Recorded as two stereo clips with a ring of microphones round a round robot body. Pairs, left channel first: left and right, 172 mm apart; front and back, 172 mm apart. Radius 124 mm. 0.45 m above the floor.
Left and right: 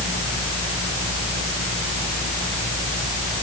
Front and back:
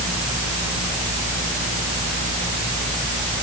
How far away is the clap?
No clap in this recording.